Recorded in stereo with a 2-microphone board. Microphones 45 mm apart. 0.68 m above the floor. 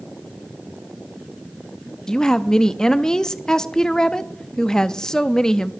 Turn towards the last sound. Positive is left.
turn(degrees=15)  # may be behind; listen again after turning